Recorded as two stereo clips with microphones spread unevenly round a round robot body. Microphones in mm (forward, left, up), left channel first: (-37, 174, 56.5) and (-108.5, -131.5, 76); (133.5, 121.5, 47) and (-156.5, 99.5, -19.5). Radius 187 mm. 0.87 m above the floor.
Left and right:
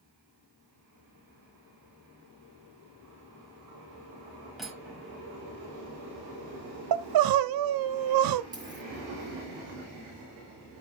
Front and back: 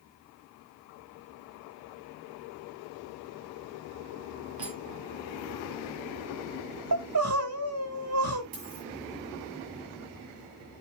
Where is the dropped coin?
Straight behind, 8.5 m.